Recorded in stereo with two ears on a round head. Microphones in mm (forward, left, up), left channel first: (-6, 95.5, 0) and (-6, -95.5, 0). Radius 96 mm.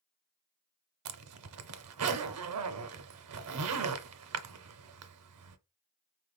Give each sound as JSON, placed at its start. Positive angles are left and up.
{"t": 1.1, "sound": "a zipper", "side_deg": -75, "distance_m": 0.6}